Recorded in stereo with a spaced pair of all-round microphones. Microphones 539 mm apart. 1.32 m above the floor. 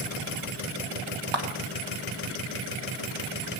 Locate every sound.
1.3 s a clap: 50° right (ahead or behind), 1.9 m